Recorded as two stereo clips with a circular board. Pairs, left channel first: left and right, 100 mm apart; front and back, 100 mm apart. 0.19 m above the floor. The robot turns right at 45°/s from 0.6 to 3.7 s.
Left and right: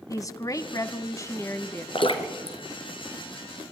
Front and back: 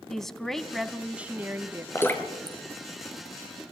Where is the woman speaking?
85° left, 1.3 m; by 1.9 s 140° left, 1.3 m.